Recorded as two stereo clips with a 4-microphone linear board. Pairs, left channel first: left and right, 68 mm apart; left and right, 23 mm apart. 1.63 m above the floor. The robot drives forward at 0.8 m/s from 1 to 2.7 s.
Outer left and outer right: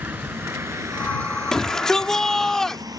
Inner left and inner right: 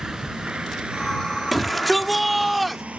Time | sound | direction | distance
0.0 | a vehicle | 30° right (ahead or behind) | ?
1.5 | a shout | 5° left (ahead or behind) | ?